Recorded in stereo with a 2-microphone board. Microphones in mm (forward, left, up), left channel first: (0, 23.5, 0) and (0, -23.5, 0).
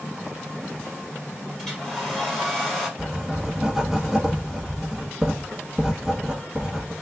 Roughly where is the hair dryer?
Centre.